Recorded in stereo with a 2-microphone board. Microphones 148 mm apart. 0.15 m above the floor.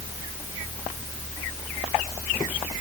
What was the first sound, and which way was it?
Only background noise.